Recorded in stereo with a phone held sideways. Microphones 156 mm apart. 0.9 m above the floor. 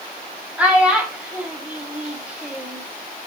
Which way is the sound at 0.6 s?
5° right (ahead or behind).